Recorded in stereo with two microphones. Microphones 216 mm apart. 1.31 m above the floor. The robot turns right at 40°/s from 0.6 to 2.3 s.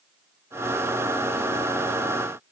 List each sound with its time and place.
Only background noise.